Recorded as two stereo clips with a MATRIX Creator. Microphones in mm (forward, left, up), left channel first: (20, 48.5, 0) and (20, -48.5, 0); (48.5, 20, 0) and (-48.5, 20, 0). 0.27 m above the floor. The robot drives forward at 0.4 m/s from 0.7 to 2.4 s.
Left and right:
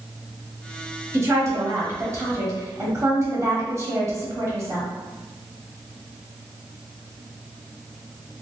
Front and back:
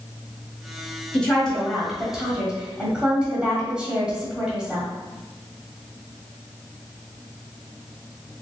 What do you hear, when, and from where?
1.1 s a woman speaking: 65° right, 1.3 m; by 4.9 s 110° right, 1.3 m